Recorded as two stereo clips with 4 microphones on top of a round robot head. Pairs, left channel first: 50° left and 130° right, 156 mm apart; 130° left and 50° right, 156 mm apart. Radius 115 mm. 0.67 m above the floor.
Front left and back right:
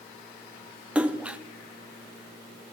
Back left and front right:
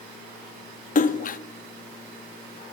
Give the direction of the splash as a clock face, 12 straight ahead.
7 o'clock.